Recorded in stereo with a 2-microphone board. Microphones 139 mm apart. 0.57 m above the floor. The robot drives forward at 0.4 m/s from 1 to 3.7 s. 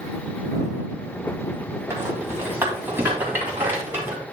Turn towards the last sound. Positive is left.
turn(degrees=-15)  # may be behind; listen again after turning